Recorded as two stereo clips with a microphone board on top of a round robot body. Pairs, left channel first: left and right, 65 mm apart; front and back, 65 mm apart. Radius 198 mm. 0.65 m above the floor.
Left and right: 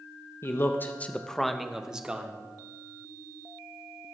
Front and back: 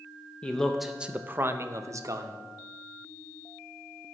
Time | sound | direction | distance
0.4 | a man speaking | 65° left | 0.9 m